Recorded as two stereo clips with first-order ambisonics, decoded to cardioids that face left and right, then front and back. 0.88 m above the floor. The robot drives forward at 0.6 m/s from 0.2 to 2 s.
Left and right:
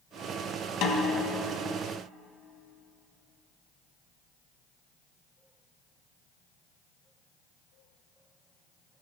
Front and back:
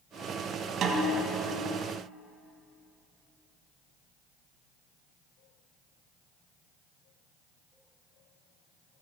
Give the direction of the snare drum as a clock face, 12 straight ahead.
8 o'clock.